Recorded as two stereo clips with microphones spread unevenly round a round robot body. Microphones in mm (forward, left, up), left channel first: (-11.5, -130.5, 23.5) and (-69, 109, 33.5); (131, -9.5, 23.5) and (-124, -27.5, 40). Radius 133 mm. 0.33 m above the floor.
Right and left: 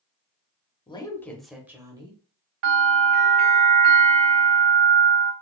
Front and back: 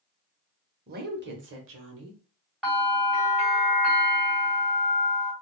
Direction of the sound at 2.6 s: 90° left.